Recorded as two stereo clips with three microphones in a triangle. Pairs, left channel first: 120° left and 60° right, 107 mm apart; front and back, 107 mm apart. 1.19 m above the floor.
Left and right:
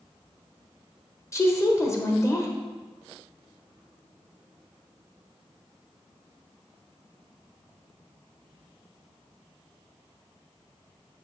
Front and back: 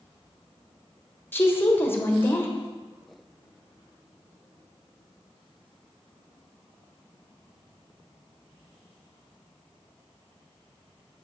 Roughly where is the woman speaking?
Ahead left.